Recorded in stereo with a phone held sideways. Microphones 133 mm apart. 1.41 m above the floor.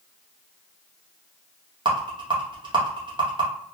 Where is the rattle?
40° right (ahead or behind), 0.9 m.